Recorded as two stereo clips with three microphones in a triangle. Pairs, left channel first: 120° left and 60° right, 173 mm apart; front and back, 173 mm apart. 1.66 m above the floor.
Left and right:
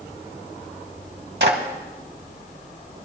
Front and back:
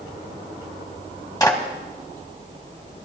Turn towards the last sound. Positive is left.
turn(degrees=-70)